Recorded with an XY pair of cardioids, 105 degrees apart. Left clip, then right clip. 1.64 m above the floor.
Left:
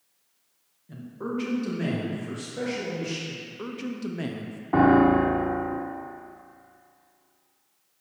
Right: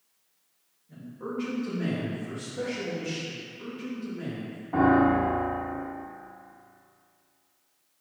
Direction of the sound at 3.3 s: 70° left.